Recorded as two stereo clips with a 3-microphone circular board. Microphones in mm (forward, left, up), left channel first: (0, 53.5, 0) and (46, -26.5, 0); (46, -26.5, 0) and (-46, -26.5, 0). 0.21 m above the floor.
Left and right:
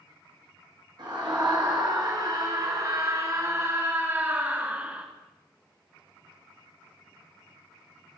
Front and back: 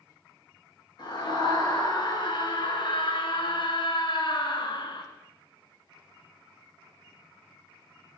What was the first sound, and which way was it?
A scream, 30° right.